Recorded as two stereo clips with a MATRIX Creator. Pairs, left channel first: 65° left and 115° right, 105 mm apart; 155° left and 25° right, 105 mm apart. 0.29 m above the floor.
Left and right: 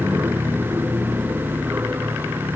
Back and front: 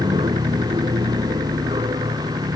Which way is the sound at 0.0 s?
50° right.